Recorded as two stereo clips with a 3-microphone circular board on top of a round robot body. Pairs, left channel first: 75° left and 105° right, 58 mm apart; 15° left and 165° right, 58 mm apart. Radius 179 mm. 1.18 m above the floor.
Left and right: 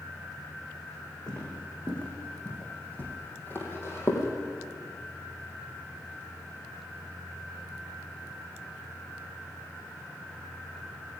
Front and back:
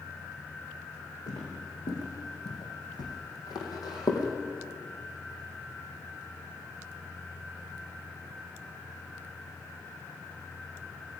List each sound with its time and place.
1.3 s footsteps: 5° right, 4.5 m; by 4.3 s 30° left, 3 m